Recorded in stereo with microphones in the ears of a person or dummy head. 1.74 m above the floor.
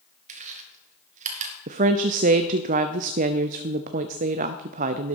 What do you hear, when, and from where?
0.3 s chewing: 40° right (ahead or behind), 1.8 m
1.7 s a woman speaking: 40° right (ahead or behind), 0.6 m